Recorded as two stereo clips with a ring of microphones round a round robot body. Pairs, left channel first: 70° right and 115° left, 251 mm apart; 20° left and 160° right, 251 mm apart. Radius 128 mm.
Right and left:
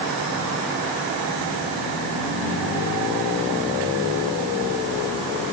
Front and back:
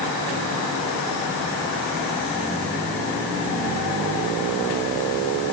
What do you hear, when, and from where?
Only background noise.